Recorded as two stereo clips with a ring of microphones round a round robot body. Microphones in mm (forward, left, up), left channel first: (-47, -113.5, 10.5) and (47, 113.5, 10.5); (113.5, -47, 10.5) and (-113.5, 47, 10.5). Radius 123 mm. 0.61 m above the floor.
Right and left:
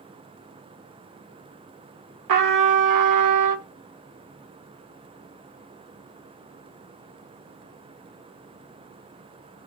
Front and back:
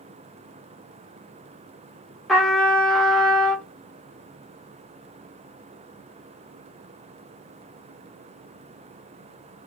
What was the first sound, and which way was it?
A trumpet, 65° left.